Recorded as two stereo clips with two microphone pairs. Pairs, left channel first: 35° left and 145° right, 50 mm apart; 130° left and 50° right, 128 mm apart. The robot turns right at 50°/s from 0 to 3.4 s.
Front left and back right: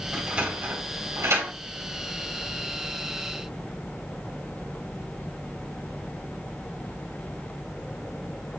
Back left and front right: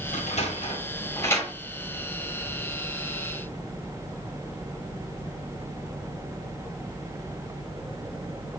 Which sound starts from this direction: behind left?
A sliding door, at 0.1 s.